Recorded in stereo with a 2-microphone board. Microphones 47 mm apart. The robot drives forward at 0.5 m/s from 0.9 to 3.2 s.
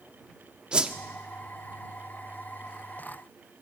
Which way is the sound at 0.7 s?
20° right (ahead or behind).